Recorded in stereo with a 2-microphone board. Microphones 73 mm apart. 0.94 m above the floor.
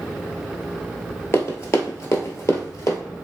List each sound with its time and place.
1.3 s running footsteps: 35° left (ahead or behind), 1.1 m; by 3.0 s 40° left (ahead or behind), 1.3 m